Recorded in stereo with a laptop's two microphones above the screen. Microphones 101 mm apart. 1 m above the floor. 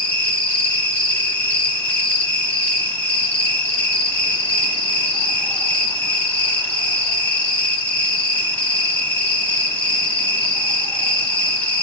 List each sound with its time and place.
0.0 s an insect: 15° left (ahead or behind), 0.8 m